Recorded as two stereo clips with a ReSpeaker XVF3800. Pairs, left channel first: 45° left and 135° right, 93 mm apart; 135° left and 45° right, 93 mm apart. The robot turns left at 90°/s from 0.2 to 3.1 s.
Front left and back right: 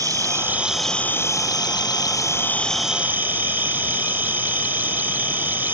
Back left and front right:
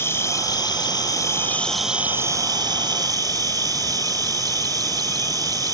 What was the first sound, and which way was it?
An insect, 170° right.